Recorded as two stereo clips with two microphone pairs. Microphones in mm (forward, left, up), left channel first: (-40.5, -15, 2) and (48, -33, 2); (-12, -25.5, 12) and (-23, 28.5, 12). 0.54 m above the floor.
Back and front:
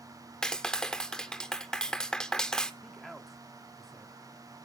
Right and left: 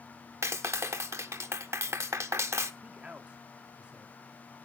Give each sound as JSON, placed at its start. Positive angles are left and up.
{"t": 0.4, "sound": "a clap", "azimuth_deg": 90, "distance_m": 0.8}
{"t": 2.8, "sound": "a man speaking", "azimuth_deg": 80, "distance_m": 0.9}